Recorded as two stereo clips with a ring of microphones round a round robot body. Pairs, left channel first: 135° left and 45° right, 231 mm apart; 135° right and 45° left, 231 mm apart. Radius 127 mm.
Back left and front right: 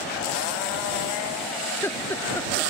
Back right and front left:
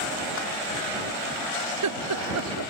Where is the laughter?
55° left.